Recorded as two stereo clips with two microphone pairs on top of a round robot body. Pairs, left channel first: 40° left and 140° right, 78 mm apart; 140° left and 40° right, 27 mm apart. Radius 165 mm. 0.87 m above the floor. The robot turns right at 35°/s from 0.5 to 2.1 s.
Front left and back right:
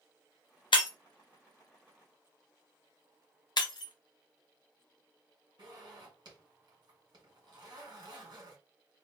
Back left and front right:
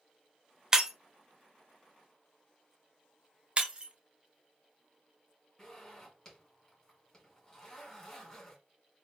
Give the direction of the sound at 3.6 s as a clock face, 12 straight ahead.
12 o'clock.